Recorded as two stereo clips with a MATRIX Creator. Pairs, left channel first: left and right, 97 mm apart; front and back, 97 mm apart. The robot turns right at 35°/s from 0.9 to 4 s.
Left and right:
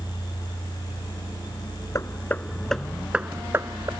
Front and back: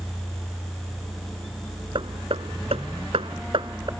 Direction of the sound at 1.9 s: 150° left.